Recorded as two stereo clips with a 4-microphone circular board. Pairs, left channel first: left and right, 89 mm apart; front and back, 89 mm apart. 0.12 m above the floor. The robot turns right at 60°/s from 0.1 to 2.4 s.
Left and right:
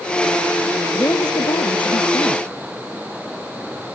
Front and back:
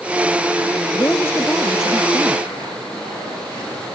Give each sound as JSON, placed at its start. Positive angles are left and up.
{"t": 0.9, "sound": "a woman speaking", "azimuth_deg": 40}